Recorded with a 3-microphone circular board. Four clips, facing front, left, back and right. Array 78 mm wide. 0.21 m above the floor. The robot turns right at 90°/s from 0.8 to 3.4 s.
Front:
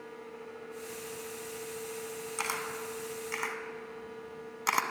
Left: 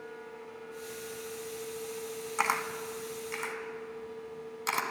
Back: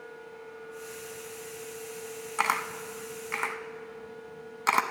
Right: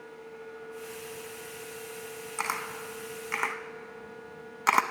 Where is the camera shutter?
155° left, 0.6 m; by 4.8 s 115° right, 0.6 m.